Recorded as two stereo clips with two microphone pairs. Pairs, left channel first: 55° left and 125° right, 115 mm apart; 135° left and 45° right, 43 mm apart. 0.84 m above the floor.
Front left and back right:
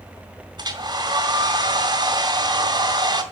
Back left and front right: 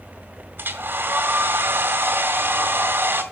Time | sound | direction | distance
0.6 | a hair dryer | 75° right | 2 m